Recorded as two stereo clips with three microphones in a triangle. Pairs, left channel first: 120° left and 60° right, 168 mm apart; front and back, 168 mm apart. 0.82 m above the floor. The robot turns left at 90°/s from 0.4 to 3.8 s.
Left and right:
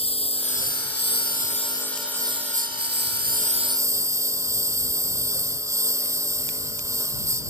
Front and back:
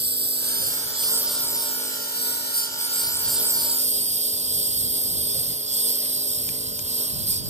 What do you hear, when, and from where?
0.0 s a lawn mower: 175° left; by 7.5 s 135° right